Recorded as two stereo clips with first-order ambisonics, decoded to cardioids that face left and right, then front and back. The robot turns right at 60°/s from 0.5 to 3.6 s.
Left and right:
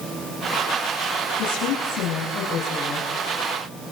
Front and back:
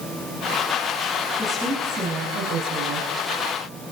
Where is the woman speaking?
75° left, 5.5 m; by 3.1 s straight behind, 5.5 m.